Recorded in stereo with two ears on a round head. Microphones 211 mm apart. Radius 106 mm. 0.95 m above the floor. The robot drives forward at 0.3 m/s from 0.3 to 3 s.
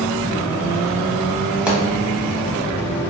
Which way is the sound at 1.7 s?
5° right (ahead or behind).